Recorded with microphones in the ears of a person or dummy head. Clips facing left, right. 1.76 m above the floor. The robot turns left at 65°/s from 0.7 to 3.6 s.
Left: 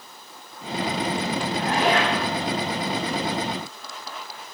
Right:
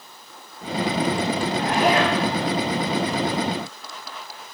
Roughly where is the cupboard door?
No cupboard door in this recording.